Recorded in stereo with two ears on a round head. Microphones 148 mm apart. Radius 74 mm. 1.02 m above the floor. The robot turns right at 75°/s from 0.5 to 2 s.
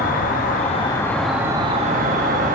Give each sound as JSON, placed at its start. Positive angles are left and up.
{"t": 0.0, "sound": "an insect", "azimuth_deg": 125, "distance_m": 0.9}